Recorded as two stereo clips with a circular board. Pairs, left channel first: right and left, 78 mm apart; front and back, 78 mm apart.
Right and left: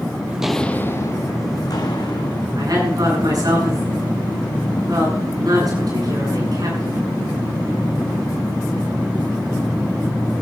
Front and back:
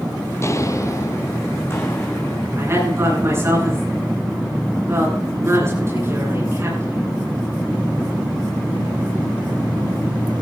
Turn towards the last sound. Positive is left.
turn(degrees=125)